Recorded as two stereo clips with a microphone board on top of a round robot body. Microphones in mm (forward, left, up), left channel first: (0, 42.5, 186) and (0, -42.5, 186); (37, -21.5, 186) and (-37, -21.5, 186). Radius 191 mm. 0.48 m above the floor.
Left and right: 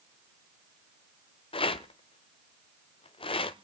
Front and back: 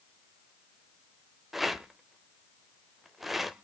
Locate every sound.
1.5 s a rattle: 95° left, 0.9 m